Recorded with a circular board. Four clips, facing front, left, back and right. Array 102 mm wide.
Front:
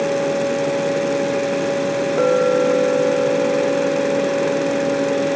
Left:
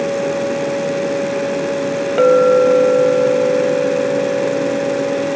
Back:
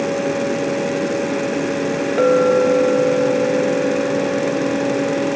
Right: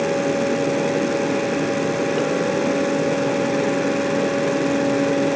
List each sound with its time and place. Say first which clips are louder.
2.2 s a clink: left 10 dB, back 3 dB; 100° left